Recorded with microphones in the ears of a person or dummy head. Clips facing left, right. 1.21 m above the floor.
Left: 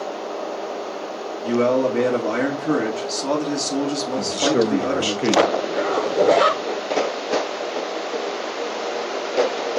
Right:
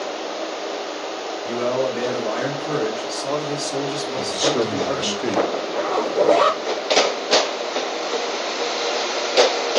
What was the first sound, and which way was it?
A man speaking, 75° left (ahead or behind).